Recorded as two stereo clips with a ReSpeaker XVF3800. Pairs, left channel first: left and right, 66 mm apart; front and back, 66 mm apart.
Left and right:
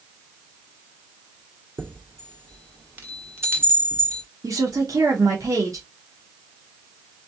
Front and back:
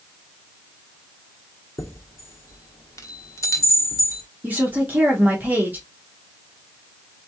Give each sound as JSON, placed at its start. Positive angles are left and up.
{"t": 1.8, "sound": "a chime", "azimuth_deg": -35, "distance_m": 1.4}
{"t": 4.4, "sound": "a woman speaking", "azimuth_deg": -115, "distance_m": 1.6}